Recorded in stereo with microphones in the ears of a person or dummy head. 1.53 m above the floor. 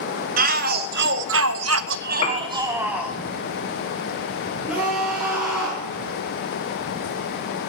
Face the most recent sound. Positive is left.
turn(degrees=-20)  # may be behind; listen again after turning